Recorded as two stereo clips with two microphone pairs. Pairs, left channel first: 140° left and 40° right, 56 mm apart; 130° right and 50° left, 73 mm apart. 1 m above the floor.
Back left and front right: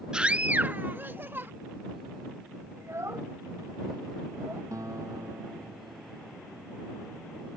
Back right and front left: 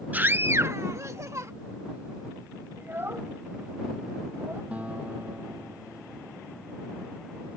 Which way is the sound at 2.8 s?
5° right.